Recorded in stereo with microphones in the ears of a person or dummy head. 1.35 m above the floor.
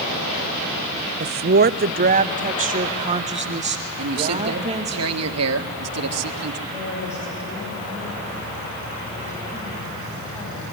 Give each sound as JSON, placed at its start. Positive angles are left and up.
{"t": 1.2, "sound": "a woman speaking", "side_deg": -45, "distance_m": 0.5}
{"t": 4.0, "sound": "a man speaking", "side_deg": -80, "distance_m": 1.8}
{"t": 6.7, "sound": "a woman speaking", "side_deg": 15, "distance_m": 8.5}